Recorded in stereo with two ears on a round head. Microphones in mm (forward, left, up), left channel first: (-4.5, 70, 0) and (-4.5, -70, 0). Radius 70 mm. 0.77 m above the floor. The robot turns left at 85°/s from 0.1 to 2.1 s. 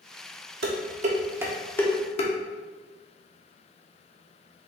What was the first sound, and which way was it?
Dishes clattering, 75° right (ahead or behind).